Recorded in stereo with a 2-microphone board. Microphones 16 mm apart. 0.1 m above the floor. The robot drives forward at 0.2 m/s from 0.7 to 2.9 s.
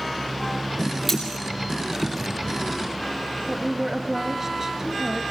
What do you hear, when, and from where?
1.1 s cutlery clinking: 5° left (ahead or behind), 5.5 m
3.5 s a woman speaking: 30° right (ahead or behind), 1.2 m